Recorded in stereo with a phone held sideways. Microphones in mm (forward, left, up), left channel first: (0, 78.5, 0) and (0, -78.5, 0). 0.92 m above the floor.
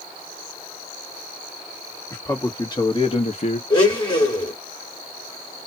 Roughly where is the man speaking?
Centre.